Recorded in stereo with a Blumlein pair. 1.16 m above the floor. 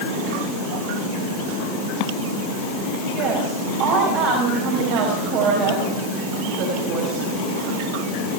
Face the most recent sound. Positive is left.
turn(degrees=-40)